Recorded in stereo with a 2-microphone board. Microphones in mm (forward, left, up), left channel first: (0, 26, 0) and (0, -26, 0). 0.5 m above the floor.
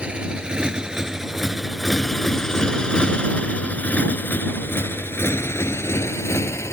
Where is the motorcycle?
25° right (ahead or behind); by 6.7 s 60° left (ahead or behind).